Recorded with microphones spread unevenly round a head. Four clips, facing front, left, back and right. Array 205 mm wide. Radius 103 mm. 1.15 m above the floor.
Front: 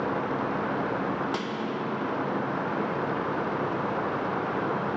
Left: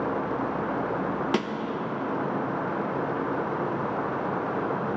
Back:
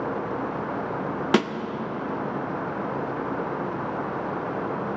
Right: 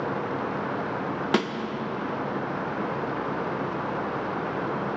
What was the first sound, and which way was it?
A snare drum, 165° right.